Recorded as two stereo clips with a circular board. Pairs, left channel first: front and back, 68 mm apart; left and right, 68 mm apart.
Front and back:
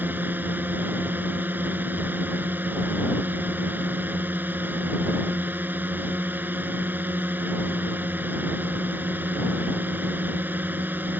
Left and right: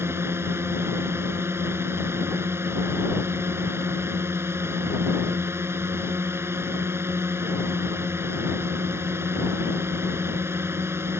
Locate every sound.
0.0 s a drone: 130° right